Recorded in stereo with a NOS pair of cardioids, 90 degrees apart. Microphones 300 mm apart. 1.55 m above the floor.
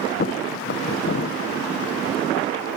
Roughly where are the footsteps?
Ahead left.